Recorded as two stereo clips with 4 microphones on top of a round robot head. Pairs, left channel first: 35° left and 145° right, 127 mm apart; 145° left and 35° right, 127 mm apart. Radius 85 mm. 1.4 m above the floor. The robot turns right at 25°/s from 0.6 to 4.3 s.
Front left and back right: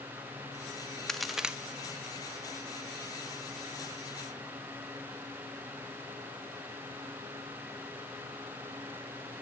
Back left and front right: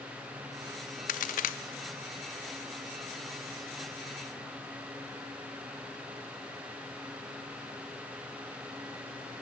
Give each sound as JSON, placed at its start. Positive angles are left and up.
{"t": 1.1, "sound": "a crack", "azimuth_deg": 125, "distance_m": 0.8}